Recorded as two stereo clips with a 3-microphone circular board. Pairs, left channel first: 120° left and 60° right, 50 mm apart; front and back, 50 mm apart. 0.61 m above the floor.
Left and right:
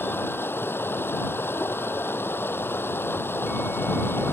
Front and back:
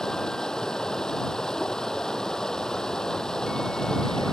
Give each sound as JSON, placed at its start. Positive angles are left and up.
{"t": 0.0, "sound": "running water", "azimuth_deg": 75}